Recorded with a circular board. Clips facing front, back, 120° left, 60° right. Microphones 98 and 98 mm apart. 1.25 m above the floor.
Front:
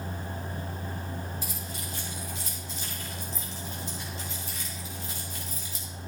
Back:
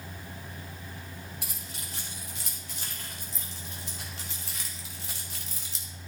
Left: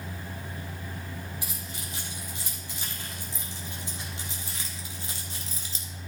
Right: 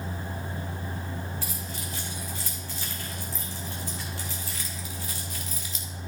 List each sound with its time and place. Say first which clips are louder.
1.4 s keys jangling: front 6 dB, right 3 dB; 165° right, 3.5 m; by 5.8 s 175° left, 1.2 m